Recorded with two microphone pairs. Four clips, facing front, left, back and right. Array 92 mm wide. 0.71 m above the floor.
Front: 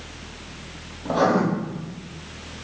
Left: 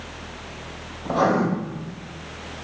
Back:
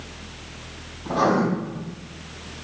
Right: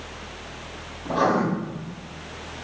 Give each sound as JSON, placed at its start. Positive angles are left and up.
{"t": 1.1, "sound": "writing", "azimuth_deg": 50, "distance_m": 3.0}